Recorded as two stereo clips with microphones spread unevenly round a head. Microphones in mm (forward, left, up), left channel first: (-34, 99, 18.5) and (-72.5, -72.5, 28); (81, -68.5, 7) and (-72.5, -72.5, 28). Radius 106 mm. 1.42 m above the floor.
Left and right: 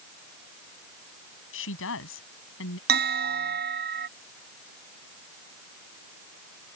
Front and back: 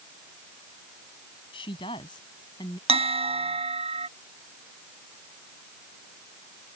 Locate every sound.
1.5 s a woman speaking: 70° left; by 2.8 s 75° left
2.9 s a bell: 130° right